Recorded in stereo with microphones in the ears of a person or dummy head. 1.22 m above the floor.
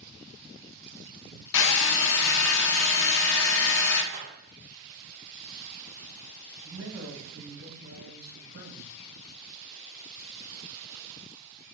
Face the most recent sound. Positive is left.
turn(degrees=-60)  # may be behind; listen again after turning